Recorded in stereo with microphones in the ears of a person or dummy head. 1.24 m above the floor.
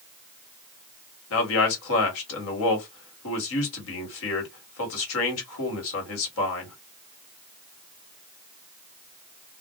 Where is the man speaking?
70° left (ahead or behind), 1.5 m.